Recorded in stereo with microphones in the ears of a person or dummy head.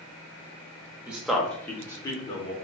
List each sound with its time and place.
1.1 s a man speaking: 5° right (ahead or behind), 0.9 m; by 2.5 s 35° left (ahead or behind), 1.4 m